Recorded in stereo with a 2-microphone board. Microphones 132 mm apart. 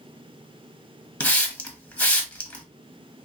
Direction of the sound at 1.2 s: 10° left (ahead or behind).